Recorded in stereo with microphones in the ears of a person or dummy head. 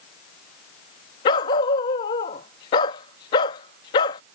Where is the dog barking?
25° left (ahead or behind).